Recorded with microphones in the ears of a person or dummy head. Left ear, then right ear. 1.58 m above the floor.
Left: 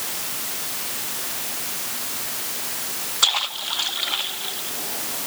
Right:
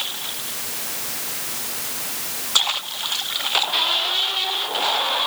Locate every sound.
Only background noise.